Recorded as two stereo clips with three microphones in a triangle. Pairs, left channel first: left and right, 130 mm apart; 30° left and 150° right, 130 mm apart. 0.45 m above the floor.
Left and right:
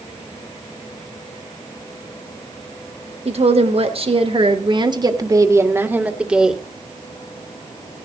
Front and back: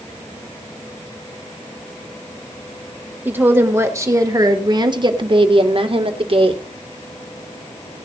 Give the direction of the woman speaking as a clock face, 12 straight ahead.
3 o'clock.